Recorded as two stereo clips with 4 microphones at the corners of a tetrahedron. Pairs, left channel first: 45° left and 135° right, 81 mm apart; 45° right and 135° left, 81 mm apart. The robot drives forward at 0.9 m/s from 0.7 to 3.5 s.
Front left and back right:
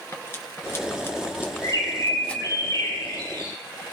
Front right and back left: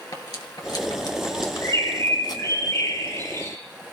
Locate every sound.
0.1 s cutlery clinking: 10° right, 2.5 m; by 2.5 s 35° right, 1.0 m
1.6 s a bird: 5° left, 8 m